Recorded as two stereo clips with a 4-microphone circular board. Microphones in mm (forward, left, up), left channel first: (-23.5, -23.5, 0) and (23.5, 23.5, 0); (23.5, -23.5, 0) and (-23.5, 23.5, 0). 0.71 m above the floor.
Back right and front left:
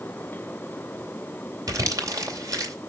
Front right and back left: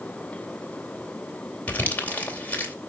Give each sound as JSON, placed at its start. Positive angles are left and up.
{"t": 1.7, "sound": "crumpling", "azimuth_deg": 20, "distance_m": 2.5}